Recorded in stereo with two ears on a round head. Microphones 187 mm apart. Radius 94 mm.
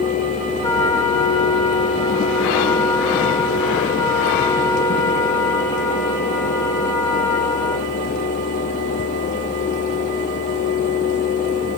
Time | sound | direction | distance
0.6 | a trumpet | 15° left (ahead or behind) | 2 m